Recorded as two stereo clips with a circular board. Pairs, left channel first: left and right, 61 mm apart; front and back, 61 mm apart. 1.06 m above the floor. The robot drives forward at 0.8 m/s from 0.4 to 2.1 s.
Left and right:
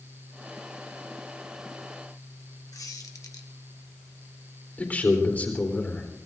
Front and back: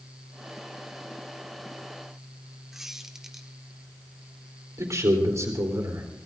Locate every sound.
2.7 s a squeak: 95° left, 1.3 m
4.8 s a man speaking: 150° left, 3.5 m